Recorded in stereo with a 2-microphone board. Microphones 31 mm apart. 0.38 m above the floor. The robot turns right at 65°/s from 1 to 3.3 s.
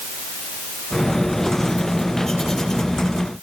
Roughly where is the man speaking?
I don't hear a man speaking.